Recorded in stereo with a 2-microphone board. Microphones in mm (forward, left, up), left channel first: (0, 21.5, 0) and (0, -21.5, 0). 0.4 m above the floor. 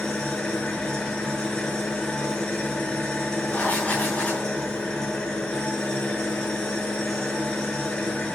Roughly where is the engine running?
Centre.